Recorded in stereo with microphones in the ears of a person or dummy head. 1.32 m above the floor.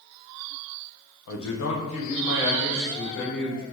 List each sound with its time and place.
1.3 s a man speaking: 60° left (ahead or behind), 0.6 m; by 3.6 s 85° left, 2.5 m